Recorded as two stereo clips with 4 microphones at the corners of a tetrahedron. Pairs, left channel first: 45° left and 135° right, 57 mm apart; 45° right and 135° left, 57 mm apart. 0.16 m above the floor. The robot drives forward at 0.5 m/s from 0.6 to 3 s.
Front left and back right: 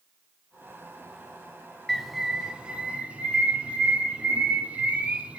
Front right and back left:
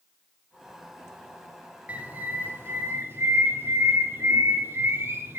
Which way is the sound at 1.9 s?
130° left.